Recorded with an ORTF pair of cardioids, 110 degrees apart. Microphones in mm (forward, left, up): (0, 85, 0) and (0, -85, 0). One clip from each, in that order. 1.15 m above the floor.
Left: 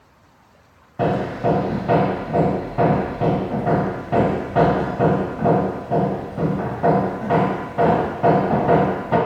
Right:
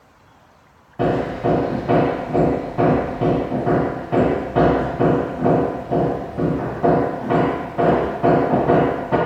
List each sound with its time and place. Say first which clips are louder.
1.0 s hammering: right 1 dB; 5° left, 0.6 m